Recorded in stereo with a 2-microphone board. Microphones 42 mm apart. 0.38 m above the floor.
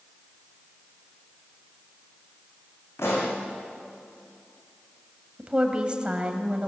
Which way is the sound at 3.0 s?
85° left.